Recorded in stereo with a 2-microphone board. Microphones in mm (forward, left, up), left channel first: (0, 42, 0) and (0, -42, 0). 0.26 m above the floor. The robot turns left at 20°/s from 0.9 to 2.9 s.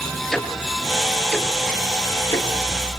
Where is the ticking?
5° left (ahead or behind), 4.5 m; by 2.5 s 35° left (ahead or behind), 4.5 m.